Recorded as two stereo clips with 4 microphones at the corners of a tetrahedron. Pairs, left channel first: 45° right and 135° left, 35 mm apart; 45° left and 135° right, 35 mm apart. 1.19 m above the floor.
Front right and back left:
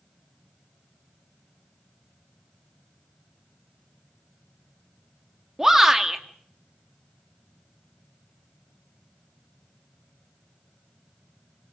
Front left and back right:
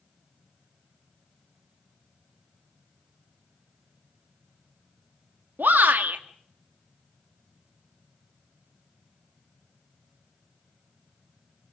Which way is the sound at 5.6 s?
150° right.